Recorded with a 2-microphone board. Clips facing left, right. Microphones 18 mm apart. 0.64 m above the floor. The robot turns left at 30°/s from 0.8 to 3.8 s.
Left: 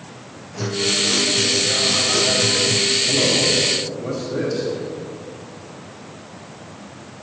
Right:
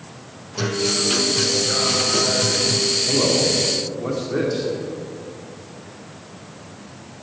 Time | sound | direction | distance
0.6 | a guitar | 115° right | 1.1 m
3.1 | a man speaking | 45° right (ahead or behind) | 1.8 m